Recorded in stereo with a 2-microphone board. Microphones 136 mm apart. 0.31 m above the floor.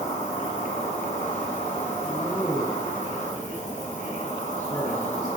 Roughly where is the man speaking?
Left.